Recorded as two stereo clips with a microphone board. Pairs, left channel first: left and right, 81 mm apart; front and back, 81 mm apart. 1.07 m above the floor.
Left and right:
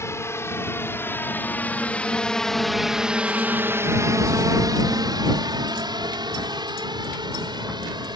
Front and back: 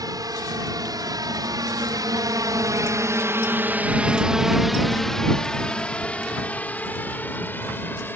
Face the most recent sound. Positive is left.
turn(degrees=-65)